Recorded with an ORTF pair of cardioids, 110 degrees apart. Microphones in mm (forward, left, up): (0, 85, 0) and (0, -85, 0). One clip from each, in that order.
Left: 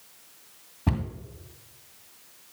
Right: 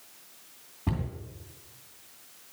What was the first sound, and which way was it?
A cupboard door, 35° left.